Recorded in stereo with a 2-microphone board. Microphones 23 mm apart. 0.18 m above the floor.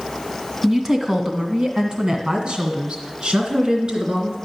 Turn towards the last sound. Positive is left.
turn(degrees=-55)  # may be behind; listen again after turning